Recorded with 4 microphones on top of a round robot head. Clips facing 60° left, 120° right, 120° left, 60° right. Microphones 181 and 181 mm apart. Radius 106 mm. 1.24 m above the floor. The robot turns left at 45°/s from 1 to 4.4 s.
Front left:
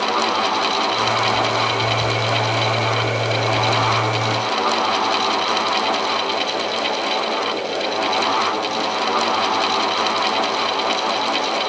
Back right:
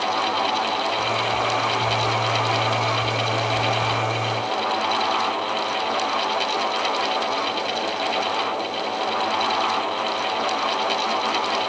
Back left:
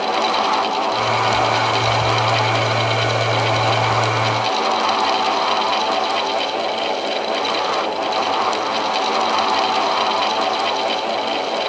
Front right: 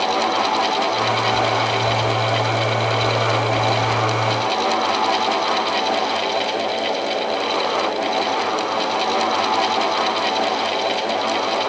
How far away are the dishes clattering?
No dishes clattering in this recording.